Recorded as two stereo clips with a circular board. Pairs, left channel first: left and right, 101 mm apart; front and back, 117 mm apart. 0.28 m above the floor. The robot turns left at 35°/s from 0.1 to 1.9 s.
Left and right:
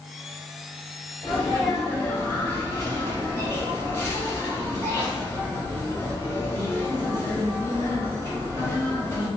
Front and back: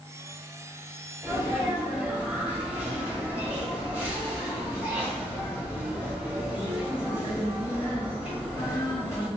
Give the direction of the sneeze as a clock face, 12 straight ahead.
7 o'clock.